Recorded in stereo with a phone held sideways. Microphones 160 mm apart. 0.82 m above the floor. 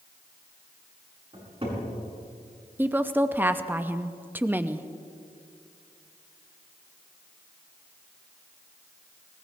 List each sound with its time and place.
1.3 s a cupboard door: 35° right (ahead or behind), 7 m
2.8 s a woman speaking: 10° right (ahead or behind), 0.6 m